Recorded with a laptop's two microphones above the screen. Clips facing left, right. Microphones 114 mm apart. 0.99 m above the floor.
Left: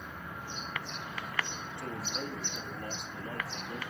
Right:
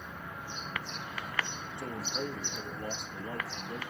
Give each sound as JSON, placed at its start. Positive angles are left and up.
{"t": 1.8, "sound": "a man speaking", "side_deg": -15, "distance_m": 1.1}